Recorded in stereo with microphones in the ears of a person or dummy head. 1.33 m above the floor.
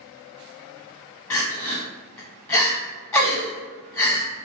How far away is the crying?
About 0.8 m.